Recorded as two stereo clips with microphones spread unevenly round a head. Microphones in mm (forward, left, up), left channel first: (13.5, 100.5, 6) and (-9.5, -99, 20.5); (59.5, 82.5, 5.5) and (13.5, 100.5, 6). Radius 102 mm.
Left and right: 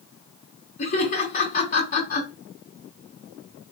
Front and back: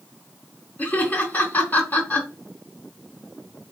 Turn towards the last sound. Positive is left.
turn(degrees=35)